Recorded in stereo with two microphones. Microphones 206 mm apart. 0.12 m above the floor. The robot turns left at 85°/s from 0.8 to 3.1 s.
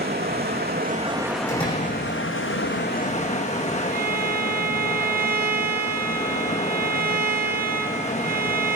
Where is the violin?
50° right (ahead or behind), 0.8 m.